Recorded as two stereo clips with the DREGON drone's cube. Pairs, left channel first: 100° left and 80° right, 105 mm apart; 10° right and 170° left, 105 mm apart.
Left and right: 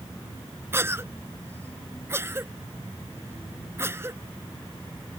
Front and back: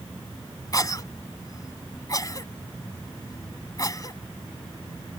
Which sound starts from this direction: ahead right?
A cough, at 0.7 s.